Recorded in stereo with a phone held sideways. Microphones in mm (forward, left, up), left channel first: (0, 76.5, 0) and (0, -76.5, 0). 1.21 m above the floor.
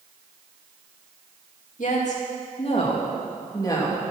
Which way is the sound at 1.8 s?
60° left (ahead or behind).